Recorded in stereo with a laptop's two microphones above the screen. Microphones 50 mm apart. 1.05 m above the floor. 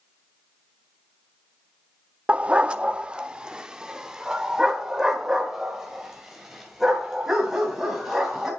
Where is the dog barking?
25° right (ahead or behind), 0.5 m; by 8.5 s 5° right (ahead or behind), 3.5 m.